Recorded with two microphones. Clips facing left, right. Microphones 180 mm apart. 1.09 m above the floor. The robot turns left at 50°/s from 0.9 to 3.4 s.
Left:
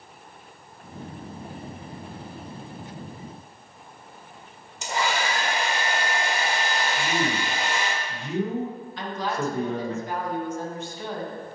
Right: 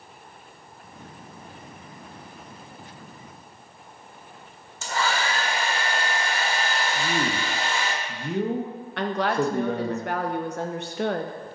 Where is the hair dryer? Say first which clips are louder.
Even; 15° left (ahead or behind), 1.0 m.